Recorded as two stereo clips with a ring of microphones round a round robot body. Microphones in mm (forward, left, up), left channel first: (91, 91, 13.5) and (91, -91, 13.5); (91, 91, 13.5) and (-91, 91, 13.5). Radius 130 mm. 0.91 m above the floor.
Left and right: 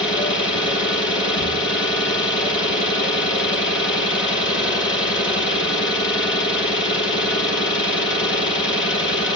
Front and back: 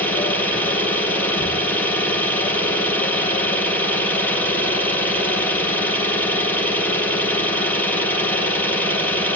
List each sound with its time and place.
0.0 s an engine running: 80° left, 6.5 m